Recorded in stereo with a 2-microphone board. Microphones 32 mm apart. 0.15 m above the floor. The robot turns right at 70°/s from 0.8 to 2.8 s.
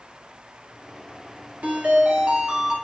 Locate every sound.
1.6 s a ringtone: 105° right, 1.0 m; by 2.8 s 25° right, 1.0 m